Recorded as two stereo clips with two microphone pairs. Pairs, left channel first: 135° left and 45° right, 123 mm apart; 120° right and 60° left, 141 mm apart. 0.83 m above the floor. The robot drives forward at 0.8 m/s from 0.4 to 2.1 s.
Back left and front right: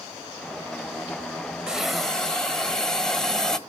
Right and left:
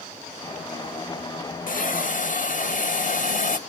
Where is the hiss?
125° right, 1.2 m; by 3.6 s 140° right, 1.4 m.